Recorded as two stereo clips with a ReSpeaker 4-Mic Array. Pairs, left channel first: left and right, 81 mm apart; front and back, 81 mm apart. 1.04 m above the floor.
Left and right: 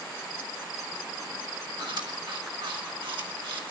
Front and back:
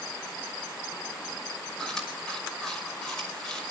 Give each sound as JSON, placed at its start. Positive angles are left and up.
{"t": 1.8, "sound": "chewing", "azimuth_deg": -85, "distance_m": 5.5}